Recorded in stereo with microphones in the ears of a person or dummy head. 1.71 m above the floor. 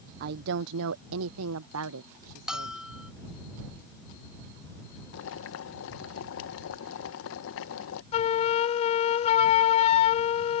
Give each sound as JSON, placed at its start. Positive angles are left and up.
{"t": 0.2, "sound": "a woman speaking", "side_deg": -45}
{"t": 2.5, "sound": "a bell", "side_deg": 0}
{"t": 5.1, "sound": "boiling", "side_deg": 75}
{"t": 8.1, "sound": "a flute", "side_deg": 40}